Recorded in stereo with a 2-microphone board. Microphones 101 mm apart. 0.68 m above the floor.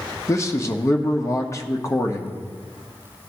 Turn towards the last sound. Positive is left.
turn(degrees=30)  # may be behind; listen again after turning